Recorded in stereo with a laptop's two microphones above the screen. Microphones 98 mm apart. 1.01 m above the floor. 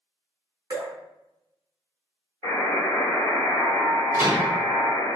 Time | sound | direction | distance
0.7 | dripping | 40° right (ahead or behind) | 0.8 m
2.4 | a buzzer | 65° left (ahead or behind) | 1.3 m
4.1 | a microwave | 25° right (ahead or behind) | 1.2 m